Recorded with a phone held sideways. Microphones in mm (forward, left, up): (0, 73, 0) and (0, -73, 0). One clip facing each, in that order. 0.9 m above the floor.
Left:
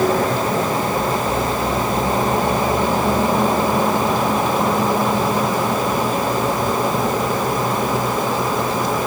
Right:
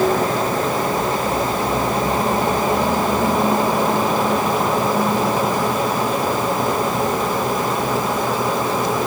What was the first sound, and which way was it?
Only background noise.